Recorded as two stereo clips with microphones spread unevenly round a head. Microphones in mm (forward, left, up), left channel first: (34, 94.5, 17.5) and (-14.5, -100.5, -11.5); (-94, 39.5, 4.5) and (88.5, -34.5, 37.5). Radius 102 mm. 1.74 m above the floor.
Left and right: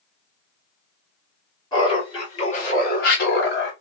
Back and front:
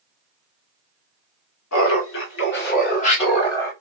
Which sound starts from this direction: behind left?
Laughter, at 1.7 s.